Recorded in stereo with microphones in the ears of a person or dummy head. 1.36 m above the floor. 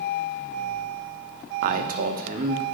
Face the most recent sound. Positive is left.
turn(degrees=-50)  # may be behind; listen again after turning